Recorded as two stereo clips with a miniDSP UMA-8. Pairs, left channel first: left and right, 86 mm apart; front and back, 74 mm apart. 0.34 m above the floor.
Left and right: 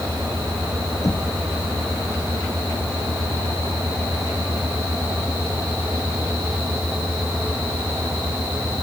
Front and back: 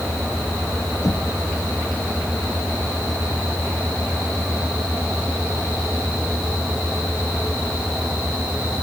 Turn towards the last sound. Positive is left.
turn(degrees=40)